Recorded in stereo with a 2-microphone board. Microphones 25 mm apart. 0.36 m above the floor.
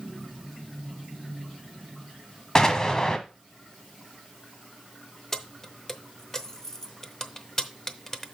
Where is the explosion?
25° left (ahead or behind), 1.1 m.